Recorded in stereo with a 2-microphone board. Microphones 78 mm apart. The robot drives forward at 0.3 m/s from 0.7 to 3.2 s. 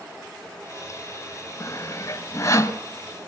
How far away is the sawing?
About 1.5 m.